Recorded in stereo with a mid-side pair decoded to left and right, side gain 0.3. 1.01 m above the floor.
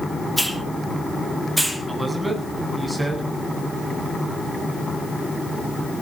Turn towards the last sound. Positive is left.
turn(degrees=-20)